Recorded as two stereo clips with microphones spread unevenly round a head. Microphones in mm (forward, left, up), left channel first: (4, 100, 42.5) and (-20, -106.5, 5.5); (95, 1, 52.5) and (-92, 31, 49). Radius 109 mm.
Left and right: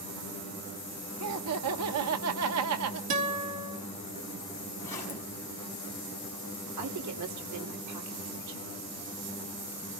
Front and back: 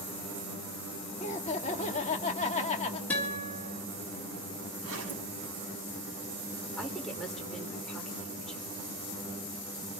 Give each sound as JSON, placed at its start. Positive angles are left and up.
{"t": 1.2, "sound": "laughter", "azimuth_deg": -70, "distance_m": 1.5}
{"t": 3.1, "sound": "a guitar", "azimuth_deg": -90, "distance_m": 3.5}
{"t": 4.8, "sound": "a zipper", "azimuth_deg": 165, "distance_m": 5.5}
{"t": 6.8, "sound": "a woman speaking", "azimuth_deg": -95, "distance_m": 3.0}